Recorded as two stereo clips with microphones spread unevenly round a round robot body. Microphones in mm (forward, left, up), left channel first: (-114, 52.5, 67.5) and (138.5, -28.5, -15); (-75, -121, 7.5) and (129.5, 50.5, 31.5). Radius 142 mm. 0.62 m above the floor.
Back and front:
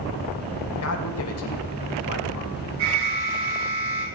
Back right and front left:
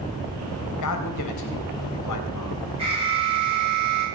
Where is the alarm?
30° right, 9.5 m.